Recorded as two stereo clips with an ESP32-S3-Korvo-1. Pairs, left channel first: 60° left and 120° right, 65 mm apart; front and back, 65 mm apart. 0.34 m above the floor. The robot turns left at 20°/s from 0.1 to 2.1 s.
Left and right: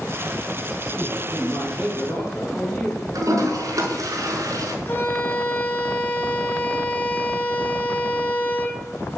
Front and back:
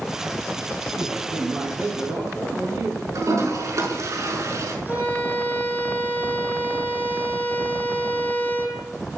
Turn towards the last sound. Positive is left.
turn(degrees=120)